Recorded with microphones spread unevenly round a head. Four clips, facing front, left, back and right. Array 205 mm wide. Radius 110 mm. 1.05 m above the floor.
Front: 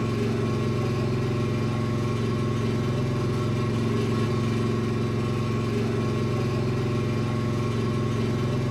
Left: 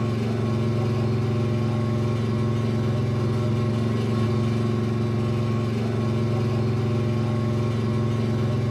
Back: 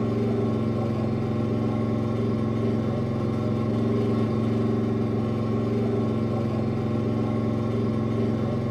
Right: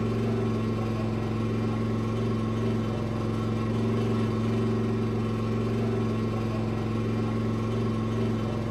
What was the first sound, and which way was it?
An engine running, 120° left.